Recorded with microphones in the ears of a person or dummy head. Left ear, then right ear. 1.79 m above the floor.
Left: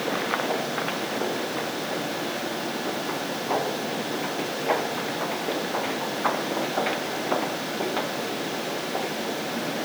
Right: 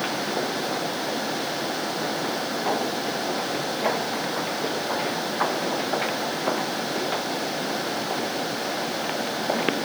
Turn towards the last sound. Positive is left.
No sound to turn to.